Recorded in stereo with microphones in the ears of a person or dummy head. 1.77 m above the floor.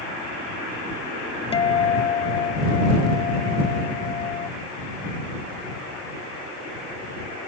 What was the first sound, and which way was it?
A guitar, 30° left (ahead or behind).